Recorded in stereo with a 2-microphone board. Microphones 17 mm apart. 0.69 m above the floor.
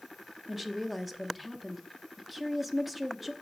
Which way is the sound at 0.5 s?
5° right (ahead or behind).